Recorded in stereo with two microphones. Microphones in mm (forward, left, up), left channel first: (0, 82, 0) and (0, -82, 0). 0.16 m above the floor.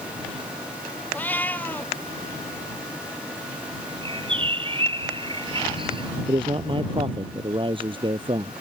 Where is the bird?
30° right (ahead or behind).